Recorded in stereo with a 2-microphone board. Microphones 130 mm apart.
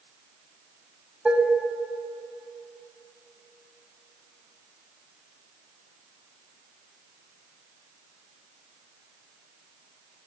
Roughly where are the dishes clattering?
Centre.